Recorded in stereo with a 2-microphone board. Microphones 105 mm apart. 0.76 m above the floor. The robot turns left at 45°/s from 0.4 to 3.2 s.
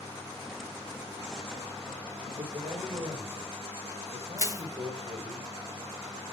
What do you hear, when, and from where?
2.3 s a man speaking: 65° right, 3.5 m; by 5.4 s 105° right, 3.5 m
4.4 s crushing: 30° right (ahead or behind), 1.5 m